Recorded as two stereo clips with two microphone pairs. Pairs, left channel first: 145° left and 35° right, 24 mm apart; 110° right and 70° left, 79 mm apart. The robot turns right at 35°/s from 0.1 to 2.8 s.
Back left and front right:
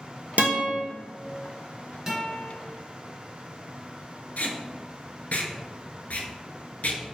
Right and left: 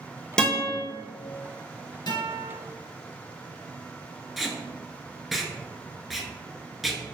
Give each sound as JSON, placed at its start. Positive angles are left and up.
{"t": 0.4, "sound": "a guitar", "azimuth_deg": -25, "distance_m": 1.2}
{"t": 2.1, "sound": "a guitar", "azimuth_deg": -100, "distance_m": 1.4}
{"t": 4.4, "sound": "tape being pulled", "azimuth_deg": 160, "distance_m": 0.6}